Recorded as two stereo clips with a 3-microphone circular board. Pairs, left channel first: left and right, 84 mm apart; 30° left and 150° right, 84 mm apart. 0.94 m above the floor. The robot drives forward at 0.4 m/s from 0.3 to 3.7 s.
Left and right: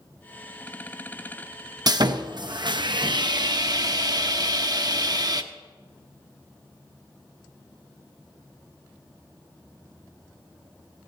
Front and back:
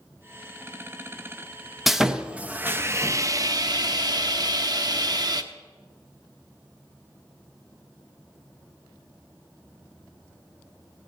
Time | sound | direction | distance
1.9 | sawing | 60° right | 0.8 m